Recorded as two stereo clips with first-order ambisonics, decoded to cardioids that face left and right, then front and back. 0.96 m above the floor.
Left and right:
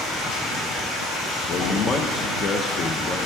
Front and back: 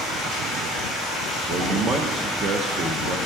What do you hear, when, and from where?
0.0 s running water: 110° left, 7.5 m
1.5 s a man speaking: 140° left, 1.0 m